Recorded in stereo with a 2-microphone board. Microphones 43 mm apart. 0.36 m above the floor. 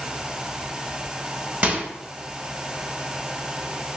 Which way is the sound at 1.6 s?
35° right (ahead or behind).